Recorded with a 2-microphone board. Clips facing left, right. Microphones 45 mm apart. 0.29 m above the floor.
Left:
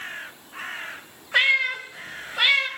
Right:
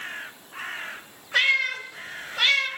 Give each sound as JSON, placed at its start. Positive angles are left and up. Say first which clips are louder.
{"t": 1.3, "sound": "a cat meowing", "louder": "left 2 dB", "side_deg": 15, "distance_m": 0.8}